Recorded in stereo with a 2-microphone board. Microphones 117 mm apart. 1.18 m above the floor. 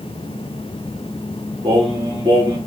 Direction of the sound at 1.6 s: 40° right (ahead or behind).